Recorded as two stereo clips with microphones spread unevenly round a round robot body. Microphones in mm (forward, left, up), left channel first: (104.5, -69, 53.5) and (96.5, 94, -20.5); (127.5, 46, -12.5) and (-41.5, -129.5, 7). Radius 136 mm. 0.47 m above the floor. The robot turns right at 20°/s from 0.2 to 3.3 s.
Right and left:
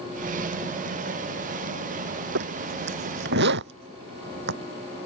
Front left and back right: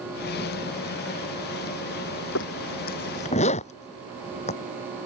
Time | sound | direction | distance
2.4 | a zipper | 95° left | ?